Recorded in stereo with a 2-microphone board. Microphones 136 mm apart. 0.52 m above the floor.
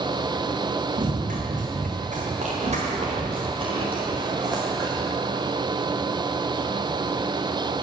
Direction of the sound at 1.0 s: 75° right (ahead or behind).